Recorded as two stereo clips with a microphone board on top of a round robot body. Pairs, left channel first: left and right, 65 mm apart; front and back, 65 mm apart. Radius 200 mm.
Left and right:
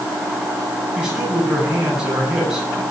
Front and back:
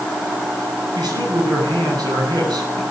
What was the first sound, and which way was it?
A man speaking, 170° right.